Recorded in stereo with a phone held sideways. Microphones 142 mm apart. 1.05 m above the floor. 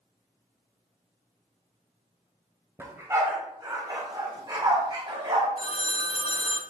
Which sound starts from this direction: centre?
A dog barking, at 2.8 s.